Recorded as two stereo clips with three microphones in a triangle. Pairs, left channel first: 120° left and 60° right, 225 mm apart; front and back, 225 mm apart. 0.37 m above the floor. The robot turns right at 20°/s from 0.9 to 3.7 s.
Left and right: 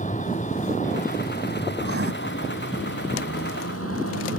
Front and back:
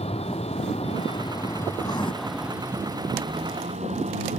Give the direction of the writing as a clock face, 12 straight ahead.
2 o'clock.